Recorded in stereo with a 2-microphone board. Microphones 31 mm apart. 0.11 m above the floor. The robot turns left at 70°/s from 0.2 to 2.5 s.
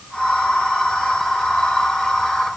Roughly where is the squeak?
I don't hear a squeak.